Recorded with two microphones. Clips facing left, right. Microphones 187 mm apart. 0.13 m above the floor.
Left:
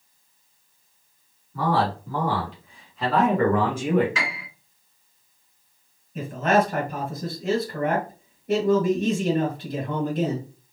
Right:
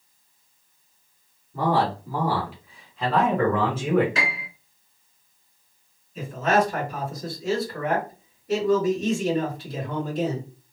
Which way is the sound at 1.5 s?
20° right (ahead or behind).